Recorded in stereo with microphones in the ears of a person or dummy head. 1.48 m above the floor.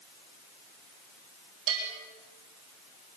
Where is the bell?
85° right, 8 m.